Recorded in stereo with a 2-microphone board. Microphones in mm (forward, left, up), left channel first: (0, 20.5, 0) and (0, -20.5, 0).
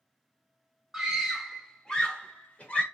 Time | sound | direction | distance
0.9 | a scream | 10° right (ahead or behind) | 0.9 m